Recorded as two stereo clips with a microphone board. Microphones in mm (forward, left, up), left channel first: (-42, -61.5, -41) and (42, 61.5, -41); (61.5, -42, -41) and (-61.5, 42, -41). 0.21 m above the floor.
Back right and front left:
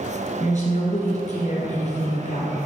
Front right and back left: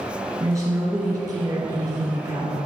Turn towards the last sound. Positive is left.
turn(degrees=-150)